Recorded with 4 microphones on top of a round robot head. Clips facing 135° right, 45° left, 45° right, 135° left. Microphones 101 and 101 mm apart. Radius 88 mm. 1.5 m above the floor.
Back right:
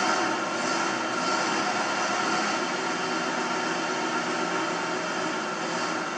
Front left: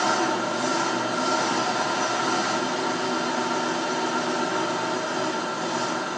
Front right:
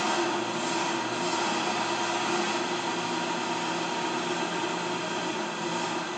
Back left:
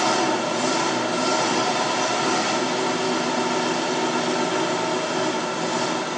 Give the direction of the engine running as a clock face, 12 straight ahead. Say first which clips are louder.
Front left 3 dB, back left 6 dB; 8 o'clock.